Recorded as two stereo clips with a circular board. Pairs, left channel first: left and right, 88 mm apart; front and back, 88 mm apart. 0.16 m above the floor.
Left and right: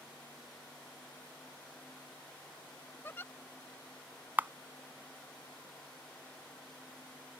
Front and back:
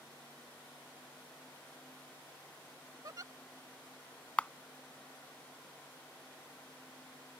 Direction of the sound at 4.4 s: 60° right.